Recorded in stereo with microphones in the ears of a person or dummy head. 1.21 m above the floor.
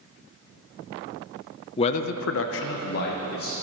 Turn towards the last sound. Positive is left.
turn(degrees=50)  # may be behind; listen again after turning